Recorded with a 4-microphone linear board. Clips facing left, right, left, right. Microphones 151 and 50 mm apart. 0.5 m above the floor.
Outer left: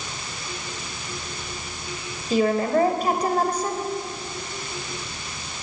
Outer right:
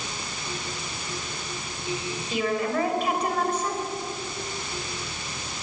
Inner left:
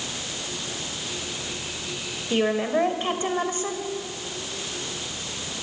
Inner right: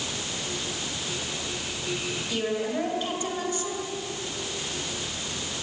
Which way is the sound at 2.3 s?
40° left (ahead or behind).